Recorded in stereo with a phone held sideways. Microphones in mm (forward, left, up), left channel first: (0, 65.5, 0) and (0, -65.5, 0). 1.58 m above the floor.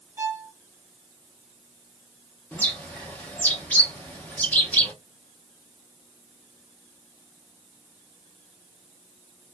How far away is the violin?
About 0.5 m.